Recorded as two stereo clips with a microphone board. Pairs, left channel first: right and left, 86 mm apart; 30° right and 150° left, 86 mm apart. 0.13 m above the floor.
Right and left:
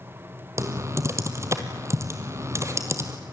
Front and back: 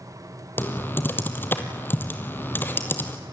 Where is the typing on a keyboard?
35° left, 2 m.